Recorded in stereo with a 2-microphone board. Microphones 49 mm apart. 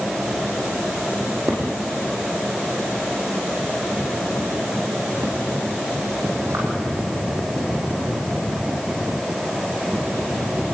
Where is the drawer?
75° right (ahead or behind), 5.5 m.